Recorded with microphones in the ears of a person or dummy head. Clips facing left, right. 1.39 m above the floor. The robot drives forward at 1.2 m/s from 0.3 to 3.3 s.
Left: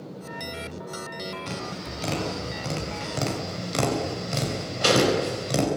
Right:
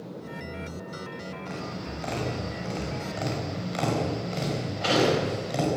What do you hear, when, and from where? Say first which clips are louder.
1.5 s tapping: left 1 dB; 50° left (ahead or behind), 7 m; by 5.7 s 65° left (ahead or behind), 6 m